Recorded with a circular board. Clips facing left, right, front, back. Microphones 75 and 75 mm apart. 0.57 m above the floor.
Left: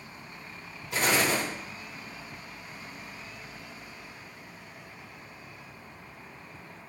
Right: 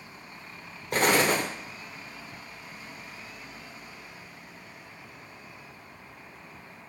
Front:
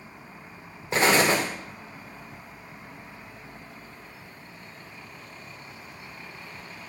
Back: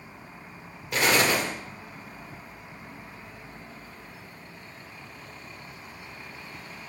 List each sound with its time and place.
0.9 s an explosion: 55° right, 0.9 m